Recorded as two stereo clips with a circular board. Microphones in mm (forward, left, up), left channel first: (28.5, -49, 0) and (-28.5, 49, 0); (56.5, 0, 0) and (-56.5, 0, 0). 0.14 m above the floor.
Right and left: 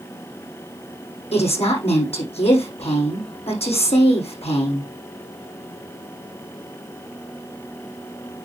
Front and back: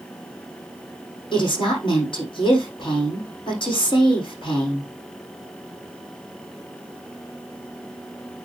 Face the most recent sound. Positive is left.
turn(degrees=-40)